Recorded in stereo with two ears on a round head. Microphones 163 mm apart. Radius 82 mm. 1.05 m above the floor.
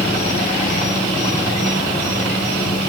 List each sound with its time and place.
0.0 s an insect: 45° left (ahead or behind), 7 m